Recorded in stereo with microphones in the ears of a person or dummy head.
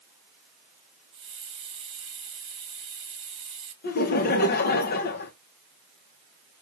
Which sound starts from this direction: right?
A hiss, at 1.1 s.